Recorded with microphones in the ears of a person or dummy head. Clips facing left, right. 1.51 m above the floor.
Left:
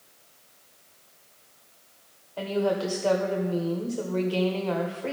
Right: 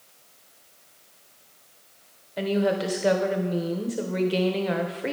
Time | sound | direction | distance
2.4 | a woman speaking | 25° right (ahead or behind) | 1.0 m